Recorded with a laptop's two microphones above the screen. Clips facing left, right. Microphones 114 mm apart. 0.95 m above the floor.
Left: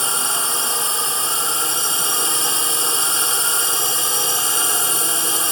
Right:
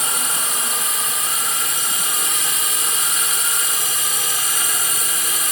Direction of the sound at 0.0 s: 30° left (ahead or behind).